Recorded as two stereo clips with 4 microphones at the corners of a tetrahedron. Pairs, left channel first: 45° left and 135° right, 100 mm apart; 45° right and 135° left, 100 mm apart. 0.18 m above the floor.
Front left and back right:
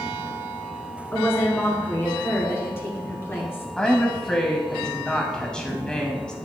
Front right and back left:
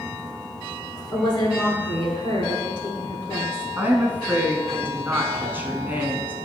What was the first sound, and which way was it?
A woman speaking, 15° right.